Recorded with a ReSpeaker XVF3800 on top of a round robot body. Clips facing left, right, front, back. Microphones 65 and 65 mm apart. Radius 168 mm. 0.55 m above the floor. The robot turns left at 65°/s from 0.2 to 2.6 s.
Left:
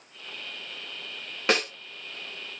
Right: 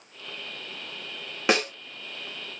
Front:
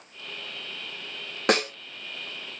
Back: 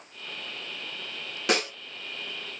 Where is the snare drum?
15° right, 1.5 m; by 1.7 s 30° right, 1.5 m.